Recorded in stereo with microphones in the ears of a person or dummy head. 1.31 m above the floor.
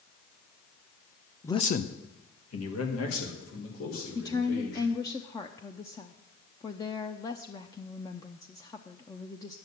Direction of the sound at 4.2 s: 20° left (ahead or behind).